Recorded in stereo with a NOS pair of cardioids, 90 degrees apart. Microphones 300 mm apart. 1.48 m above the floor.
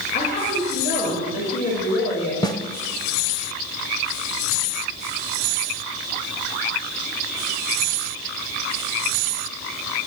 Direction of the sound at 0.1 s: 40° left.